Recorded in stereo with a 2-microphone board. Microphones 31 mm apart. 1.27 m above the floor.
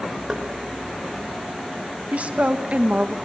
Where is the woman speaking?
50° right (ahead or behind), 1.8 m.